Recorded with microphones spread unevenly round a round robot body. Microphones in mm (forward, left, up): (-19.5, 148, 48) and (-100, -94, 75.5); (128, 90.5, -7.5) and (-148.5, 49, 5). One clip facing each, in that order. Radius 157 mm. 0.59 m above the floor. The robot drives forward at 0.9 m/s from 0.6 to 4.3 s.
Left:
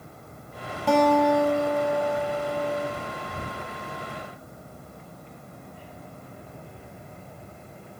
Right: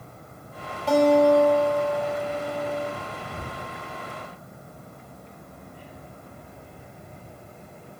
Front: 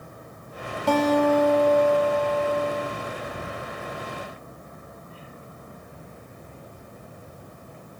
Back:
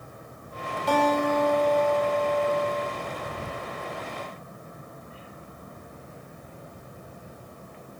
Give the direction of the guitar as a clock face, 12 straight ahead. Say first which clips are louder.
Right 3 dB, front 4 dB; 10 o'clock.